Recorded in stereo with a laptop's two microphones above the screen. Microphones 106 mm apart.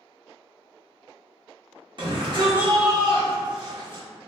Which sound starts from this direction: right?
A shout, at 2.0 s.